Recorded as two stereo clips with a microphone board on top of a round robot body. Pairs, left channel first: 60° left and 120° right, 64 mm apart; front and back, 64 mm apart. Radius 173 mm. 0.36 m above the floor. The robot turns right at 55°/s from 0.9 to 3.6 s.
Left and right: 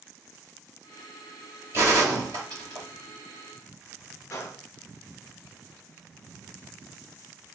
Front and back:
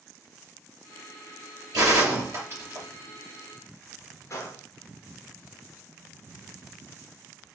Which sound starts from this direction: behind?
A gunshot, at 1.7 s.